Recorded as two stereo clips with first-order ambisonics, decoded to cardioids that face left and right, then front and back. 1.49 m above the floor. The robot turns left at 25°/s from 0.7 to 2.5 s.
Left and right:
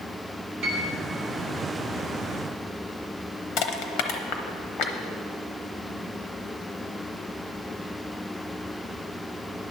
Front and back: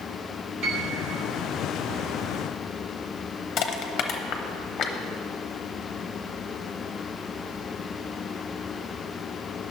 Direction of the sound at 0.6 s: 150° right.